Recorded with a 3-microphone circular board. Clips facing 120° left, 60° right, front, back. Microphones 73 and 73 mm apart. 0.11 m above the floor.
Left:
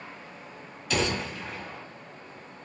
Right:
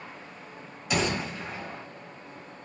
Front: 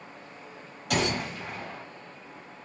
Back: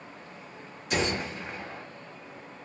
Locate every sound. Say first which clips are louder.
0.9 s a gunshot: even, front 1 dB; 15° left, 1.2 m